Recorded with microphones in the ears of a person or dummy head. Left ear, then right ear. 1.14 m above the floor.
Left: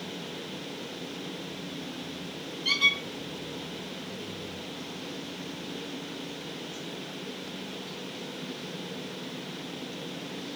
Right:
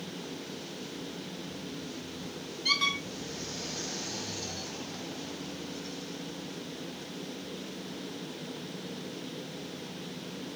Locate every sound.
2.6 s a squeak: 45° right (ahead or behind), 1.3 m